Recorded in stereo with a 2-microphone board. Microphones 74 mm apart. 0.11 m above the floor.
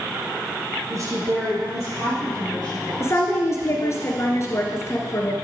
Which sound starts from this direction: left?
A woman speaking, at 3.0 s.